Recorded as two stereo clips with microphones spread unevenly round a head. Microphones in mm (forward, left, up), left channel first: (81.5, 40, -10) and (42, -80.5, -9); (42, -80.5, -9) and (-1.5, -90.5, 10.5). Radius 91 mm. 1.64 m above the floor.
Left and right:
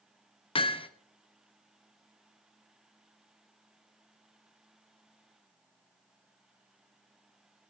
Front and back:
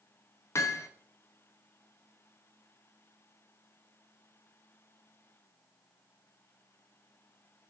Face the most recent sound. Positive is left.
turn(degrees=50)